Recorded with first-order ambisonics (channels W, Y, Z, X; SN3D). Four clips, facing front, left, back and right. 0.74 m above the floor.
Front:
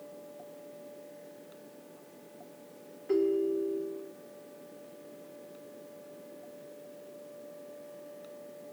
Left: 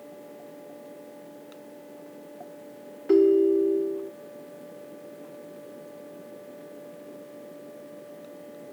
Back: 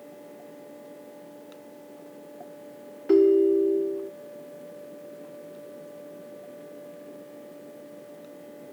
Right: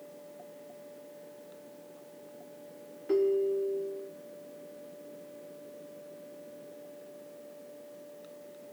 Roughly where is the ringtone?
Behind left.